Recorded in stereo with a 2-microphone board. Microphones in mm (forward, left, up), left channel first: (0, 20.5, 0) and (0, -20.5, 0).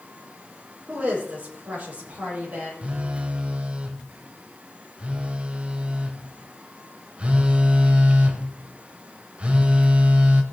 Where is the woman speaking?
40° right (ahead or behind), 8.5 m.